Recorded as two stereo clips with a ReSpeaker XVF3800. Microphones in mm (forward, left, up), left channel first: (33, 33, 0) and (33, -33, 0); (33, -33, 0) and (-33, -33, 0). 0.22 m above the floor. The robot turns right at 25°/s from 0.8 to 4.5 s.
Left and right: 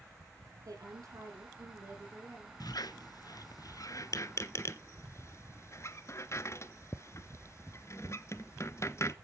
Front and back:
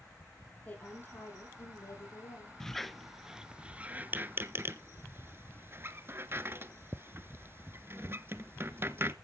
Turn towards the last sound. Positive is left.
turn(degrees=130)